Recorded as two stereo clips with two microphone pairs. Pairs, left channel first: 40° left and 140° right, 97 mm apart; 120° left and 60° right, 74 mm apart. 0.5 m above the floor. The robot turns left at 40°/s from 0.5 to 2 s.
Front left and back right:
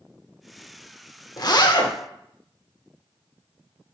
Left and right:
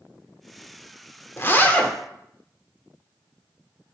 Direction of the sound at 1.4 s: 70° left.